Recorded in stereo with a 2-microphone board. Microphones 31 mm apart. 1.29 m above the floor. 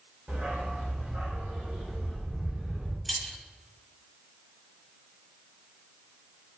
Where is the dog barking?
65° right (ahead or behind), 2.5 m; by 3.0 s 50° right (ahead or behind), 4.5 m.